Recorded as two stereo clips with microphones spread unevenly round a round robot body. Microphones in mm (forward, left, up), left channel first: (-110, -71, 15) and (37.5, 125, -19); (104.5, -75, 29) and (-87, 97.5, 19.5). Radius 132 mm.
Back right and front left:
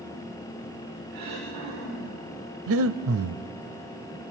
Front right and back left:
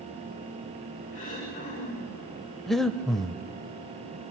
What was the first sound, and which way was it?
Throat clearing, 20° left.